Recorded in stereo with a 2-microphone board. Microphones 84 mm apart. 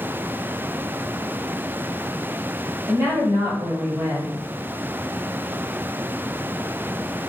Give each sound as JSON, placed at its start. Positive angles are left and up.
{"t": 2.9, "sound": "a woman speaking", "side_deg": -35, "distance_m": 1.4}